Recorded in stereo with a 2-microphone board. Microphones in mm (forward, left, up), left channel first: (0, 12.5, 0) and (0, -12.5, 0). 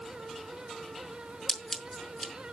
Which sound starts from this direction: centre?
Scissors, at 1.5 s.